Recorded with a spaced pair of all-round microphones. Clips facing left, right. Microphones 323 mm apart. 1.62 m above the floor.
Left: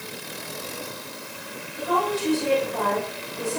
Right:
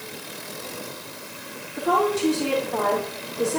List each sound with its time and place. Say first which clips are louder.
1.8 s a woman speaking: right 4 dB; 80° right, 4.5 m